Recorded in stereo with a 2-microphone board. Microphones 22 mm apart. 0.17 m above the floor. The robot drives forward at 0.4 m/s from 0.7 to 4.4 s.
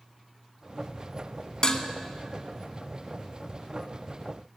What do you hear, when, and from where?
1.6 s dishes clattering: 35° left (ahead or behind), 0.8 m